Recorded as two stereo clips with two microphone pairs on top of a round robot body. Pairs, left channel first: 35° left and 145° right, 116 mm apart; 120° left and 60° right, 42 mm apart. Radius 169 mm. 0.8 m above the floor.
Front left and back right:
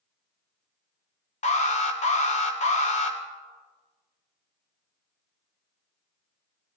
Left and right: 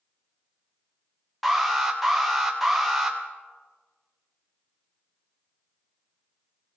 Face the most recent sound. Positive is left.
turn(degrees=30)